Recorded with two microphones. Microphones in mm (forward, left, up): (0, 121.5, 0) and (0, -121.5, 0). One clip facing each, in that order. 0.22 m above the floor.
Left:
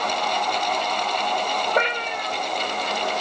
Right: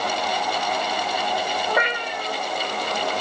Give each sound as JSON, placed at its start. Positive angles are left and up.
{"t": 1.7, "sound": "a cat meowing", "side_deg": 30, "distance_m": 1.8}